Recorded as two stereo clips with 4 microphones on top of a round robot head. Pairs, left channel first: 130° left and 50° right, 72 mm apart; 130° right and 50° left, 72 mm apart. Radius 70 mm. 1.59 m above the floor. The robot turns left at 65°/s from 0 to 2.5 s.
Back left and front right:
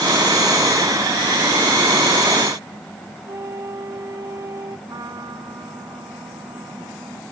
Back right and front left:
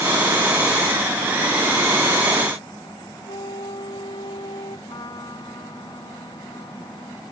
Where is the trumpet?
90° right.